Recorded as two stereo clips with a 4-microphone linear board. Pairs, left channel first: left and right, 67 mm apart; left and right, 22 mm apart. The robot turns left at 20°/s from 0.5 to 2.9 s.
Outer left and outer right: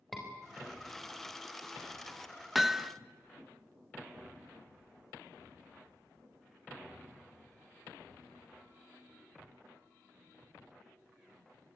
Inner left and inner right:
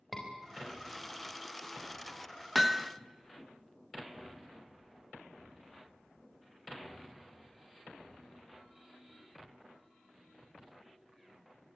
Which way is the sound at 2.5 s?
Centre (ahead or behind).